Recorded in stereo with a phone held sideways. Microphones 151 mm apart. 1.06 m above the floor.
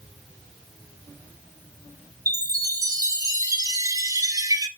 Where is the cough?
I don't hear a cough.